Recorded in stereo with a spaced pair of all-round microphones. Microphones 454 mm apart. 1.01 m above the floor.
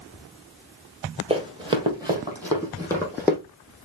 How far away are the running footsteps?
About 1.6 m.